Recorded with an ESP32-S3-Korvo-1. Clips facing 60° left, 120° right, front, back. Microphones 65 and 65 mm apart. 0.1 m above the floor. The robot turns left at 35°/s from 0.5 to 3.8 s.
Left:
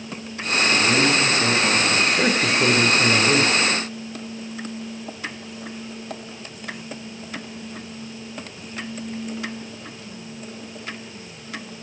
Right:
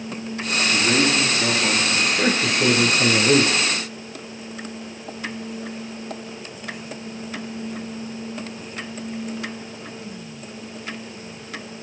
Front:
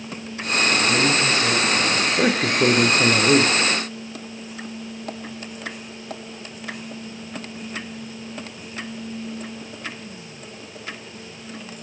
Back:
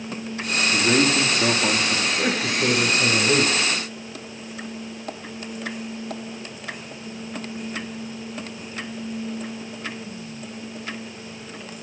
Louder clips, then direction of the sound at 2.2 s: Left 1 dB, front 4 dB; 15° right.